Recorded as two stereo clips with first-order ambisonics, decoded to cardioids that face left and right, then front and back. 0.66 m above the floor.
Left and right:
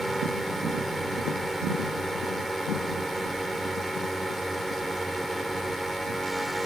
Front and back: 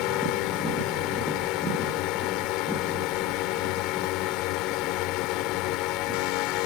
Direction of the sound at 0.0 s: 5° right.